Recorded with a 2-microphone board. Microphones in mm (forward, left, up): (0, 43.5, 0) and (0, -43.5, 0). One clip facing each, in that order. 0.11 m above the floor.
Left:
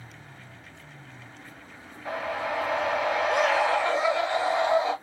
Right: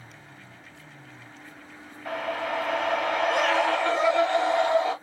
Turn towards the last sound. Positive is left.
turn(degrees=5)  # may be behind; listen again after turning